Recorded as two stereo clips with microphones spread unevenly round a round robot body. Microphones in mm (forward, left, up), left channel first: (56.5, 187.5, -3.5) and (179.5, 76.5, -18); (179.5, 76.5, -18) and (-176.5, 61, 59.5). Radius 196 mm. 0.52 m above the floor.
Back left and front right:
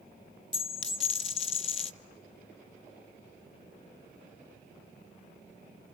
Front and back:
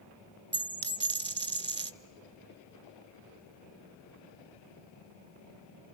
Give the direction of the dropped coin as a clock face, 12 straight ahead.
8 o'clock.